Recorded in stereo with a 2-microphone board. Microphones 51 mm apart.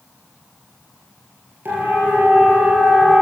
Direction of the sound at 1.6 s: 45° right (ahead or behind).